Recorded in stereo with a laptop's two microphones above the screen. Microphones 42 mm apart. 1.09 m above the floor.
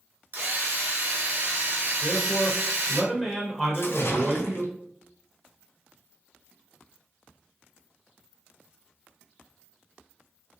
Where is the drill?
60° right (ahead or behind), 0.9 m.